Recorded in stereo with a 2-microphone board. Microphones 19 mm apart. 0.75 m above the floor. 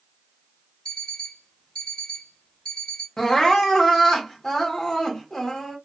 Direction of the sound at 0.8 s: 75° left (ahead or behind).